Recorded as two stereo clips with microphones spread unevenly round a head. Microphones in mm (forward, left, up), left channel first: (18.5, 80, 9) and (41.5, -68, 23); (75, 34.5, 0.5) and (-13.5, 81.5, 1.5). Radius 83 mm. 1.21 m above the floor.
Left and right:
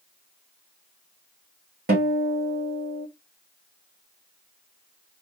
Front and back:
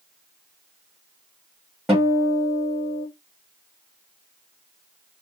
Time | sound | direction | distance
1.9 | a guitar | 120° right | 1.3 m